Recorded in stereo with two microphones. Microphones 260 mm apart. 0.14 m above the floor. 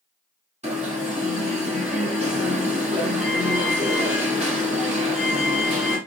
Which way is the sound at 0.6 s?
25° right (ahead or behind).